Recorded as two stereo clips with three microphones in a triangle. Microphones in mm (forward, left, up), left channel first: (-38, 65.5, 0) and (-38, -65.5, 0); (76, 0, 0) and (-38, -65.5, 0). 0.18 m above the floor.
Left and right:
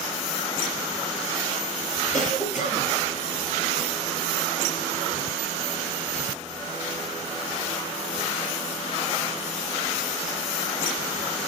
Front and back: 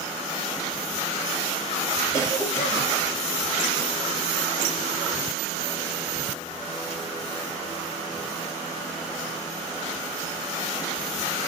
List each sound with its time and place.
2.1 s a cough: 95° left, 3.5 m